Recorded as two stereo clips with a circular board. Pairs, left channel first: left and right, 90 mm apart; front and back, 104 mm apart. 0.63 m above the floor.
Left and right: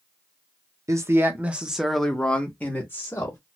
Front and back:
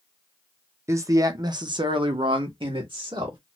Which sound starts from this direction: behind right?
A man speaking, at 0.9 s.